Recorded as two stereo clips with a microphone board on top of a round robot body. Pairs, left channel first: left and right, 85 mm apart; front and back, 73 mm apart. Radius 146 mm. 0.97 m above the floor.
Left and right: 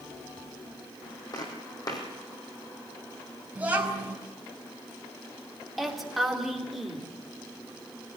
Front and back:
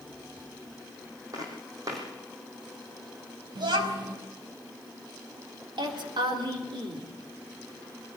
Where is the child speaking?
165° right, 5 m.